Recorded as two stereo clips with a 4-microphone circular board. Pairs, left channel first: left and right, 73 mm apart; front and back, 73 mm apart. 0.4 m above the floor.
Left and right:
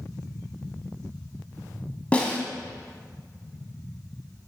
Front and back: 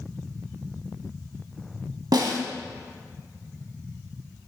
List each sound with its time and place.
2.1 s a snare drum: 160° left, 0.9 m